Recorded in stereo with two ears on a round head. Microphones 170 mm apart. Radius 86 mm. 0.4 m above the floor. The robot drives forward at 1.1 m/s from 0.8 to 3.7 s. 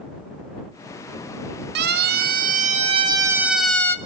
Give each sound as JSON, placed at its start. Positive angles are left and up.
{"t": 1.8, "sound": "a siren", "side_deg": -60, "distance_m": 2.0}